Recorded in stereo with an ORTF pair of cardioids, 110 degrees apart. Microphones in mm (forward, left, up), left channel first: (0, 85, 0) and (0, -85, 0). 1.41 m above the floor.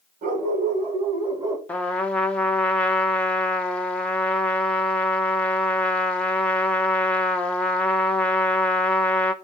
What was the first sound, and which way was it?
A dog barking, 55° right.